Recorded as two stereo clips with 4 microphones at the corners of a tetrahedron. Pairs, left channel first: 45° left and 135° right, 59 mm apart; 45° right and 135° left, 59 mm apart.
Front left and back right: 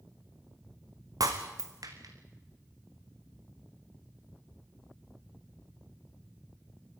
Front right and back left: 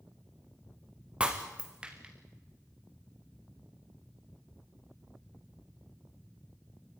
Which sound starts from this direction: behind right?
Breaking glass, at 1.2 s.